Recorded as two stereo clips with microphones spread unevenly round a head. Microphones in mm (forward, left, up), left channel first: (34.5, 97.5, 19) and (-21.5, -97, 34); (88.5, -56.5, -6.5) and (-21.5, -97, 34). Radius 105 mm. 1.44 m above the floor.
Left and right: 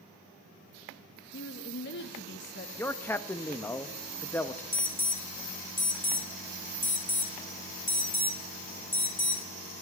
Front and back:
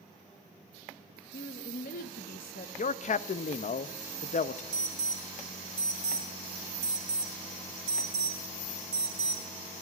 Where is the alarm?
150° left, 1.3 m.